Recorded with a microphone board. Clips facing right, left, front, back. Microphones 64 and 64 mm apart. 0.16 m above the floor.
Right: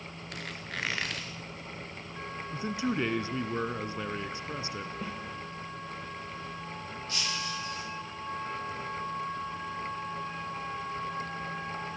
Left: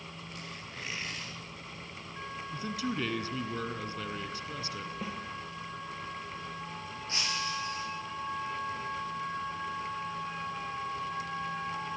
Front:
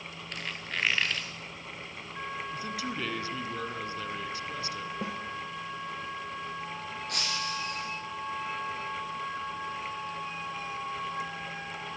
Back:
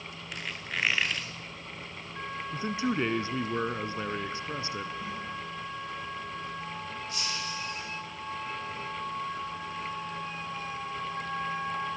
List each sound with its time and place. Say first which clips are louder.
0.3 s a squeak: right 8 dB, back 1 dB; 95° right, 3 m
2.5 s a man speaking: right 4 dB, back 10 dB; 140° right, 2.0 m
5.0 s a snare drum: even, front 2 dB; straight ahead, 4.5 m
7.1 s breaking glass: left 1 dB, front 4 dB; 25° left, 10 m